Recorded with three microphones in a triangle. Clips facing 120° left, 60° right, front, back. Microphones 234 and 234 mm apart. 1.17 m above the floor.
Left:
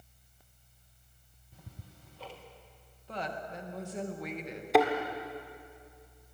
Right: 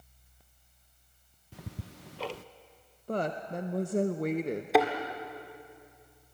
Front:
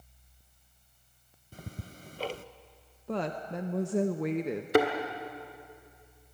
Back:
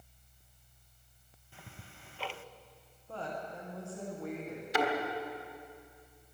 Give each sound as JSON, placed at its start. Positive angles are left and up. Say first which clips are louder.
{"t": 1.5, "sound": "ticking", "louder": "right 9 dB, front 9 dB", "azimuth_deg": -50, "distance_m": 0.5}
{"t": 3.1, "sound": "a woman speaking", "louder": "right 7 dB, front 8 dB", "azimuth_deg": -15, "distance_m": 0.7}
{"t": 4.7, "sound": "a thud", "louder": "left 1 dB, front 8 dB", "azimuth_deg": 30, "distance_m": 1.8}